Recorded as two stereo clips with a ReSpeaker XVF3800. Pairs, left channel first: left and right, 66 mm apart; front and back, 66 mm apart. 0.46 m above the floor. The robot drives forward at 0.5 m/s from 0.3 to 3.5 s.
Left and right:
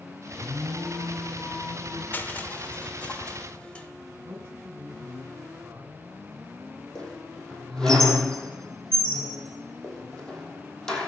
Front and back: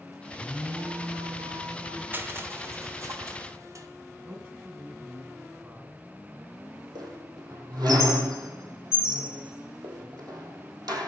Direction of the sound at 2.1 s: 140° left.